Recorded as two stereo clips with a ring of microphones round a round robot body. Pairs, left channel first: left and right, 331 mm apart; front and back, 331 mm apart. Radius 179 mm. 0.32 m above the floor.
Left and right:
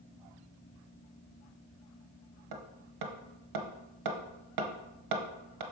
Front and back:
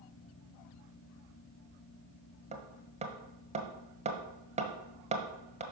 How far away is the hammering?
About 1.3 m.